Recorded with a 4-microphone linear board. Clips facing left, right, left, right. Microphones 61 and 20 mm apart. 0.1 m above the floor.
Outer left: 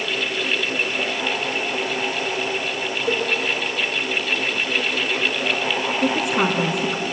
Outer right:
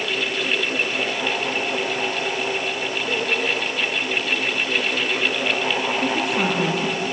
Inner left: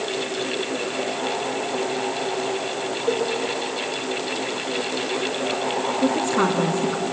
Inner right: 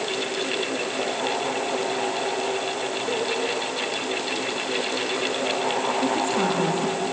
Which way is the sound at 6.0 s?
20° left (ahead or behind).